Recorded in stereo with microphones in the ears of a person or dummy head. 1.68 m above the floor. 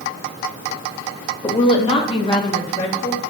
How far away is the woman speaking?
About 0.8 m.